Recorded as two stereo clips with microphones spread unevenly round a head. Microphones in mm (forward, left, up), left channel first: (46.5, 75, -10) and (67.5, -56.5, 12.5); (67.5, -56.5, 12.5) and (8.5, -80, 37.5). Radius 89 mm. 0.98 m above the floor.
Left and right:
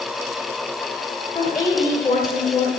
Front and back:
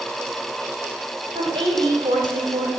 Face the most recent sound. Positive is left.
turn(degrees=170)